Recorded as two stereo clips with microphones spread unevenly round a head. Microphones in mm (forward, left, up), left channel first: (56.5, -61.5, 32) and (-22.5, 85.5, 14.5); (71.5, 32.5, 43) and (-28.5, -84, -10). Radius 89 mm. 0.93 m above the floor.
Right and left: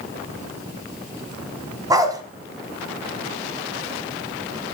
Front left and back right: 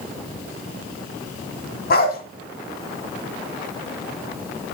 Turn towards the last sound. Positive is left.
turn(degrees=45)